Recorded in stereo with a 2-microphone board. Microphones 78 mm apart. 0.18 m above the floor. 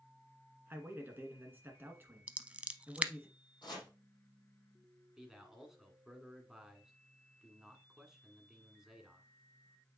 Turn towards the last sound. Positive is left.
turn(degrees=-5)  # may be behind; listen again after turning